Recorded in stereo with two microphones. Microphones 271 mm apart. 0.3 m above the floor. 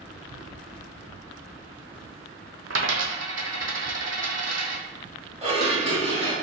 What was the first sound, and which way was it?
A dropped coin, 50° right (ahead or behind).